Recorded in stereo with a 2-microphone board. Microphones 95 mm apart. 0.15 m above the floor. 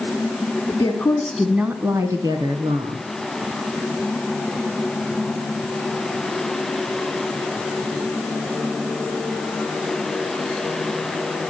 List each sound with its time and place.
0.7 s a woman speaking: 35° left (ahead or behind), 1.3 m; by 3.1 s 60° right (ahead or behind), 2 m